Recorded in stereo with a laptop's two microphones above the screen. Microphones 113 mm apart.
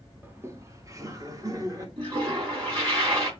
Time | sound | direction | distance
0.2 | laughter | 20° right (ahead or behind) | 0.5 m
2.0 | a toilet flushing | 40° right (ahead or behind) | 3 m